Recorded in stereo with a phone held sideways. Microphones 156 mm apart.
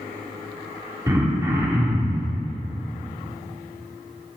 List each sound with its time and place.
1.1 s throat clearing: 20° right (ahead or behind), 1.2 m